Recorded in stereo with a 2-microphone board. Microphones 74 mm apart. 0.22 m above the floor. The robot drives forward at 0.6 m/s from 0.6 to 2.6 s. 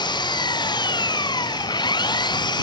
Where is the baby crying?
I don't hear a baby crying.